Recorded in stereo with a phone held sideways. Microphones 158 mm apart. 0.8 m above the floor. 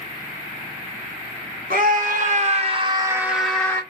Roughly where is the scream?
Right.